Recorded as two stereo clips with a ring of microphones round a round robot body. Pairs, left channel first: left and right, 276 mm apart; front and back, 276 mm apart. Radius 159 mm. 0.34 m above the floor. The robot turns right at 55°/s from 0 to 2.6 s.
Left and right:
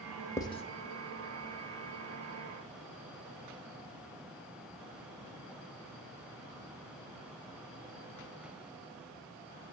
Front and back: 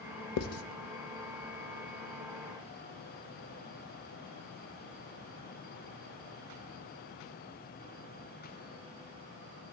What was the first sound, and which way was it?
Writing, 10° left.